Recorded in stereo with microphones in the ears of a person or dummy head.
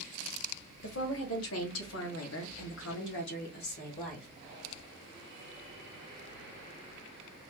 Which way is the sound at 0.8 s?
70° left (ahead or behind).